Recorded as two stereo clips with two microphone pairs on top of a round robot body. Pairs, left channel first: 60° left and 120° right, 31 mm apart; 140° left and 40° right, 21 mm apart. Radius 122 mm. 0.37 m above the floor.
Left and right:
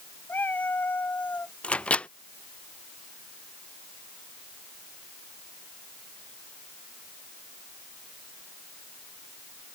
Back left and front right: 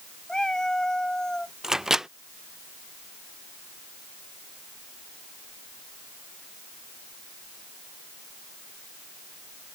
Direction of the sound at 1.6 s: 25° left.